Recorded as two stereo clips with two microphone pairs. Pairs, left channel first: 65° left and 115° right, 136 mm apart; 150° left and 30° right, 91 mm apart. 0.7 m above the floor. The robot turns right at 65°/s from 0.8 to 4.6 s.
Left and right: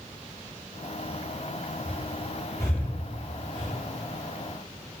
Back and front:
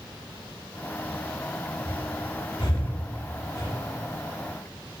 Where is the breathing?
80° left, 4 m; by 3.7 s 160° right, 4 m.